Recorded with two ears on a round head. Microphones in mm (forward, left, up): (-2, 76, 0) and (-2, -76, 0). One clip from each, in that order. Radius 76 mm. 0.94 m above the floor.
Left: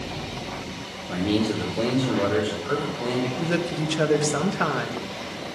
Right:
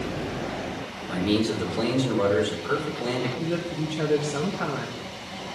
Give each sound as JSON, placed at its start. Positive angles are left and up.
{"t": 1.1, "sound": "a man speaking", "side_deg": -20, "distance_m": 3.0}
{"t": 3.4, "sound": "a woman speaking", "side_deg": 50, "distance_m": 1.0}